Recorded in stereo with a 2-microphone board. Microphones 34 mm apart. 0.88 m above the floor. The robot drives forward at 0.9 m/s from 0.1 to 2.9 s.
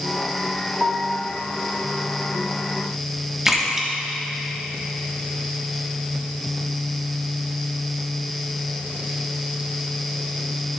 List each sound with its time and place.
0.8 s a piano: 30° right (ahead or behind), 0.8 m; by 1.3 s 35° right (ahead or behind), 0.6 m
3.5 s a splash: 20° right (ahead or behind), 1.2 m